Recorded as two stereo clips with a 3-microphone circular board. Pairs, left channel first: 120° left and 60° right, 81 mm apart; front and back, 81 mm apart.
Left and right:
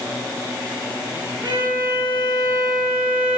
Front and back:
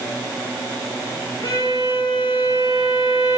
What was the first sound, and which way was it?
A violin, 5° right.